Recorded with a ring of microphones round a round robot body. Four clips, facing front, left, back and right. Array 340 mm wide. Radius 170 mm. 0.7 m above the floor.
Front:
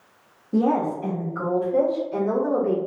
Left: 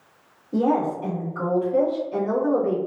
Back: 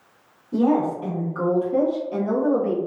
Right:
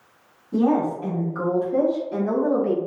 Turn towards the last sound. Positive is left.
turn(degrees=-120)